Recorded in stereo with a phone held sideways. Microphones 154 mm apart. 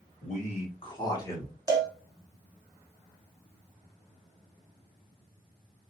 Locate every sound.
0.2 s a man speaking: 50° left (ahead or behind), 1.3 m; by 1.5 s 15° left (ahead or behind), 1.3 m
1.7 s a cowbell: 25° right (ahead or behind), 0.6 m